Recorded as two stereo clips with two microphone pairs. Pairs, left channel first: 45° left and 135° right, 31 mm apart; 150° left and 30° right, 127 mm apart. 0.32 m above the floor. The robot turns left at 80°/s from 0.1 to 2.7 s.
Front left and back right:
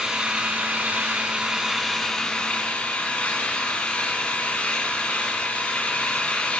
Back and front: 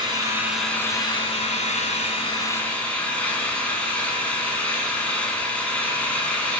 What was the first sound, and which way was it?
An engine running, 80° right.